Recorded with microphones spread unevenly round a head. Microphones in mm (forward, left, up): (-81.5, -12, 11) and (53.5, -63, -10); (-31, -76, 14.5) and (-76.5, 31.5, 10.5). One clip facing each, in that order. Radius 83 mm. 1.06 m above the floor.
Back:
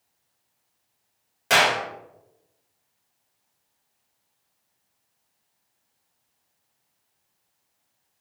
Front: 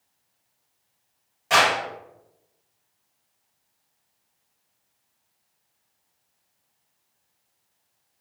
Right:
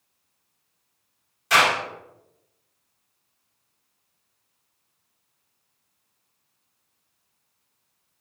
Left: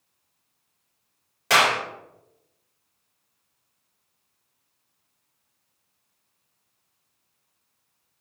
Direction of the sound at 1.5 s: 120° left.